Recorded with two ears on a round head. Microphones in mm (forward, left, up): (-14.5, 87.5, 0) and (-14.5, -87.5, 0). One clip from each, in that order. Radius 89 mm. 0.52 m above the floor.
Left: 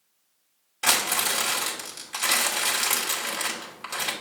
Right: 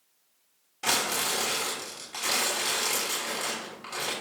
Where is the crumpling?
40° left (ahead or behind), 3 m.